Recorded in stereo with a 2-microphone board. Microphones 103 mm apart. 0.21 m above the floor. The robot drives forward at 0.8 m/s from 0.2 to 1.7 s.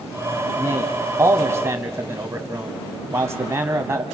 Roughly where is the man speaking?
Right.